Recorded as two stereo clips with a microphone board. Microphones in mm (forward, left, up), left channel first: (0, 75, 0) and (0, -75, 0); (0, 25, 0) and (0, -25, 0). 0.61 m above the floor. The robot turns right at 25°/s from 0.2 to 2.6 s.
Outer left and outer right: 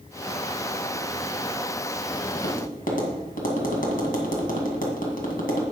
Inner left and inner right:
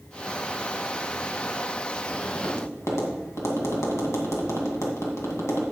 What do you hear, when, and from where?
2.3 s tapping: 60° left (ahead or behind), 2 m; by 5.6 s 65° left (ahead or behind), 2 m